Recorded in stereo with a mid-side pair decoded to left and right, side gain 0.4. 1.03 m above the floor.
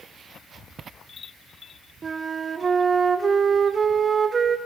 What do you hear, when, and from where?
2.0 s a flute: 40° right, 0.8 m